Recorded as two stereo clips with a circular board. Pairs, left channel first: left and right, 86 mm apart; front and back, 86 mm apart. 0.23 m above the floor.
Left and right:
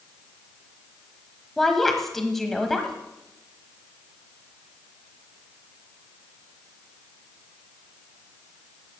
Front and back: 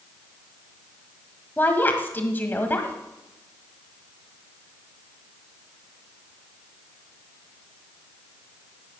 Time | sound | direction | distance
1.6 | a woman speaking | 10° left | 1.4 m